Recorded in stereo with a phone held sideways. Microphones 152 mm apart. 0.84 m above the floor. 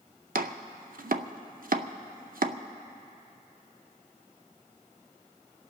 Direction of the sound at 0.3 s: 70° right (ahead or behind).